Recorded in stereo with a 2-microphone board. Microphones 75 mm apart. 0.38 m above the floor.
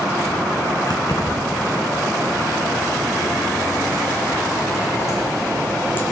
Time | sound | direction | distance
0.9 | keys jangling | 65° left (ahead or behind) | 2.5 m